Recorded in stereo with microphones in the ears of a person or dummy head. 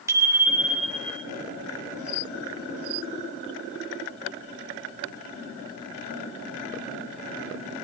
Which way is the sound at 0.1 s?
20° right (ahead or behind).